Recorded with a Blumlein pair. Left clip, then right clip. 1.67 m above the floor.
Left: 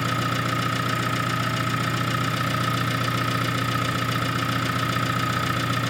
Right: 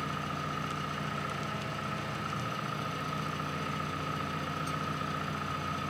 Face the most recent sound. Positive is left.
turn(degrees=45)